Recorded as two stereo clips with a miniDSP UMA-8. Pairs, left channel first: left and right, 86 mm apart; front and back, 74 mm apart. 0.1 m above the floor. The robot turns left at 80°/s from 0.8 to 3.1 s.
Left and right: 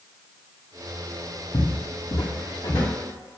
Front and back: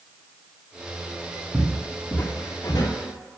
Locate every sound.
1.5 s footsteps: 100° left, 1.9 m; by 2.9 s 15° left, 3 m